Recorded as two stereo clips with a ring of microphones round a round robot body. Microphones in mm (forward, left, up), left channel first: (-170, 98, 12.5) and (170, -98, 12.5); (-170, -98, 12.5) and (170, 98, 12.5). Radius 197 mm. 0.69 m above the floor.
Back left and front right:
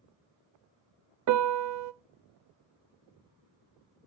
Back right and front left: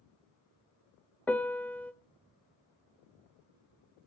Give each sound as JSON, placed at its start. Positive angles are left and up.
{"t": 1.3, "sound": "a piano", "azimuth_deg": -65, "distance_m": 0.5}